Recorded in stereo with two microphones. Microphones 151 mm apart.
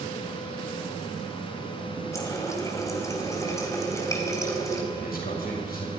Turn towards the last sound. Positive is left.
turn(degrees=80)